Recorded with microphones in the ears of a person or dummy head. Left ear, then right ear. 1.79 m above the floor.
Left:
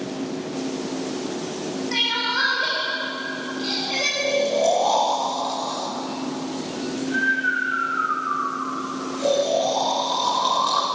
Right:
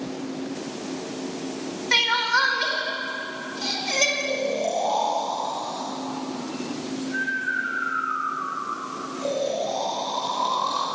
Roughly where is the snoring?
Centre.